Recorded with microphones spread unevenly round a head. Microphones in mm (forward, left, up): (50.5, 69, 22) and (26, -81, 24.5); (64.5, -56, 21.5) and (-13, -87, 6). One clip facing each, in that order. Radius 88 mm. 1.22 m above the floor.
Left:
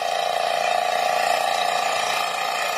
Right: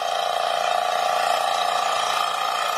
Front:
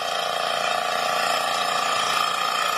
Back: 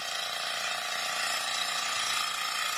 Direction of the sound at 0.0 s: 5° left.